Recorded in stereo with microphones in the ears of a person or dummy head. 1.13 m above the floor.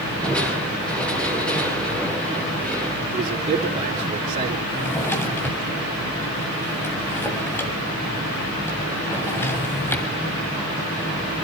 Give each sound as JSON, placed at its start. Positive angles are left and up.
{"t": 0.2, "sound": "crushing", "side_deg": 5, "distance_m": 9.0}
{"t": 3.1, "sound": "a man speaking", "side_deg": -45, "distance_m": 3.0}
{"t": 4.7, "sound": "a drawer", "side_deg": 10, "distance_m": 2.0}